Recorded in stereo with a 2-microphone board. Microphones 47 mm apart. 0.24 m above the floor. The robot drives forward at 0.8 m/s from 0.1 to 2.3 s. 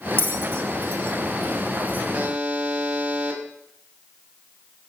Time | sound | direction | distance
0.2 | a bell | 50° right (ahead or behind) | 0.9 m
2.1 | a buzzer | 35° right (ahead or behind) | 1.7 m